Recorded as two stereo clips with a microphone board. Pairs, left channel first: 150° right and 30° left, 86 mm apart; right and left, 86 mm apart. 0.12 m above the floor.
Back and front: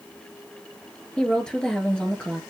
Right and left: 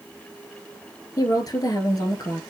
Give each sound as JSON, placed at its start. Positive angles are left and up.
{"t": 1.2, "sound": "a woman speaking", "azimuth_deg": -70, "distance_m": 1.8}